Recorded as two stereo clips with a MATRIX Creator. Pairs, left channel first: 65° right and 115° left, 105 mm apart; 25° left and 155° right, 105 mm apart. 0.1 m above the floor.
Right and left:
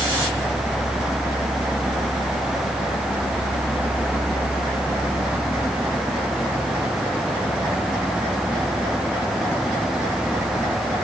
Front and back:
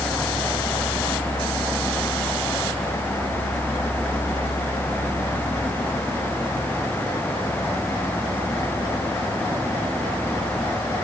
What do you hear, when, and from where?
Only background noise.